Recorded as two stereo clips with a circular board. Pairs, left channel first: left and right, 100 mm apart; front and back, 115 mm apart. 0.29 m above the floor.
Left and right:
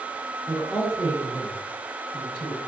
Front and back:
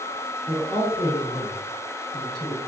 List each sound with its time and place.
0.5 s a man speaking: 15° right, 1.5 m; by 2.6 s 165° right, 1.5 m